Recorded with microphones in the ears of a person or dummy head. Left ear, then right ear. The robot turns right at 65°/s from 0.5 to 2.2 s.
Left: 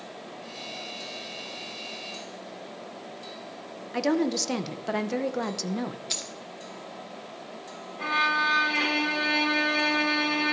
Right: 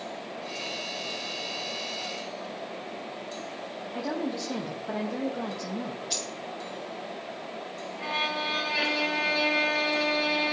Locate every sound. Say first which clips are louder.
3.9 s a woman speaking: left 7 dB; 75° left (ahead or behind), 0.6 m
6.1 s a dropped coin: right 1 dB; 30° left (ahead or behind), 0.8 m
8.0 s a violin: left 5 dB; 60° left (ahead or behind), 2 m